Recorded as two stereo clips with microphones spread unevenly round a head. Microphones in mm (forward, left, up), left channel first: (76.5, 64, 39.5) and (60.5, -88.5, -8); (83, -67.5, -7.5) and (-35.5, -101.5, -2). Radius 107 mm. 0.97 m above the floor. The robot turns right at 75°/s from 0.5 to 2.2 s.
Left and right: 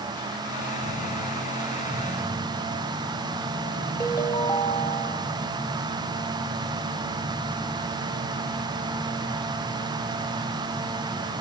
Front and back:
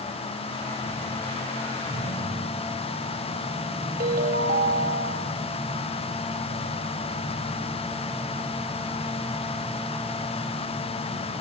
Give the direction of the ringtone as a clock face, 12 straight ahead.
7 o'clock.